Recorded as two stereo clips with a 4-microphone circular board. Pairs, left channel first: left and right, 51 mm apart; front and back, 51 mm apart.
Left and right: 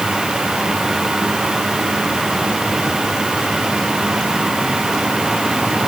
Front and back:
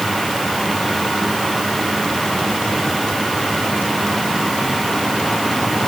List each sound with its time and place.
Only background noise.